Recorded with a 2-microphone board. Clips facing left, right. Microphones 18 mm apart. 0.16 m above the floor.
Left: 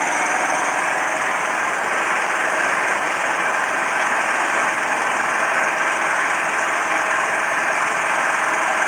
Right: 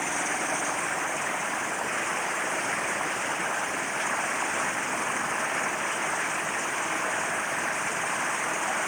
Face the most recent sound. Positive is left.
turn(degrees=80)